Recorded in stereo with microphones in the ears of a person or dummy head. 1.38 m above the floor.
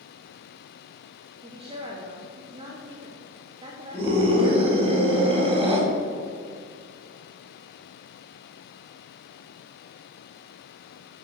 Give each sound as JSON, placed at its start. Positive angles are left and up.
{"t": 1.4, "sound": "a woman speaking", "side_deg": -30, "distance_m": 1.1}
{"t": 3.9, "sound": "a scream", "side_deg": -30, "distance_m": 3.5}